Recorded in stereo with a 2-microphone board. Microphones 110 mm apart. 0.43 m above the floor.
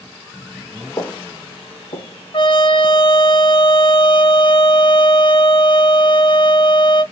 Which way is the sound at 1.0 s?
35° left (ahead or behind).